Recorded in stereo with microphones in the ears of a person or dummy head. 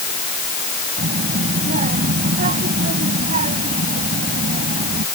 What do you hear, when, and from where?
1.0 s a child speaking: 50° right (ahead or behind)